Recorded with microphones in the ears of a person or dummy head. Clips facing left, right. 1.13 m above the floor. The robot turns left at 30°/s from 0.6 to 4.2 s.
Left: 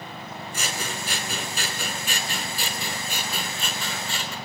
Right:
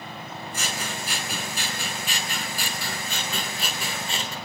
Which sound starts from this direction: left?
Scissors, at 0.5 s.